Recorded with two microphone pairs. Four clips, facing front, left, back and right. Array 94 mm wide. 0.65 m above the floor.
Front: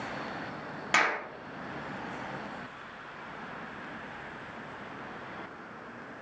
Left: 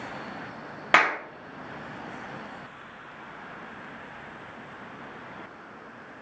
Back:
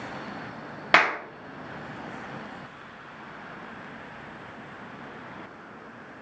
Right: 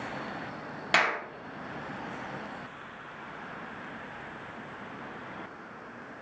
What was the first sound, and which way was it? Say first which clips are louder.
A clap: left 5 dB, back 6 dB; 135° left.